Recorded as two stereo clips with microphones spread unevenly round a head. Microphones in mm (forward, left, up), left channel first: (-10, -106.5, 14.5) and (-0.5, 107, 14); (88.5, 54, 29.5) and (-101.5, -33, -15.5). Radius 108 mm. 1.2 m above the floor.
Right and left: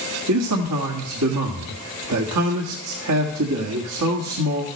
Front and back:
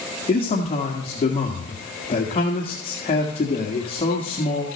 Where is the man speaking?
85° left, 1.9 m.